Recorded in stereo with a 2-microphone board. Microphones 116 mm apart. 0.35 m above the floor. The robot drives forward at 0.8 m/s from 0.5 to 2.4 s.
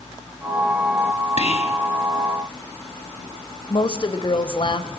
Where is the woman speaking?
50° left (ahead or behind), 1.5 m.